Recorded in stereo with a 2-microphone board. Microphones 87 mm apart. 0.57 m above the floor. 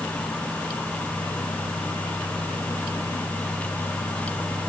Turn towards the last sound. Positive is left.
No sound to turn to.